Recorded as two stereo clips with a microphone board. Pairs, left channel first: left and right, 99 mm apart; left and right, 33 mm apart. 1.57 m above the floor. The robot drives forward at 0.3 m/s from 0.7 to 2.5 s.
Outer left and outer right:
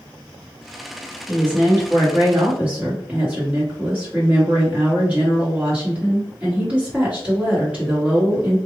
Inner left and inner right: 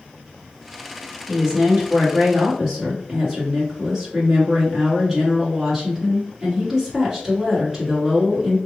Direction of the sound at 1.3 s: 20° right (ahead or behind).